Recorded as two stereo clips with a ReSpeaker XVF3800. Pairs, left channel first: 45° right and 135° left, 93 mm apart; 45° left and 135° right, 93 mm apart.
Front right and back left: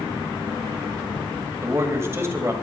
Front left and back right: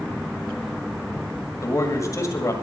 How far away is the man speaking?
About 2.0 m.